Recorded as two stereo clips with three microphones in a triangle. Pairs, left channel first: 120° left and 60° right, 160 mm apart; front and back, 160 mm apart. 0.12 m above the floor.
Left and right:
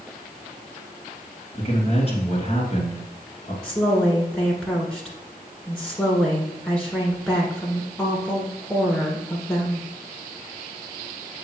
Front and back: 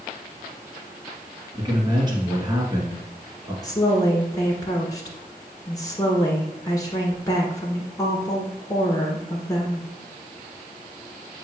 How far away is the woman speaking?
About 1.4 m.